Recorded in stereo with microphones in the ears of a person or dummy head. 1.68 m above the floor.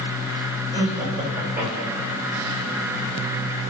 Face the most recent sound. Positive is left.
turn(degrees=0)  # may be behind; listen again after turning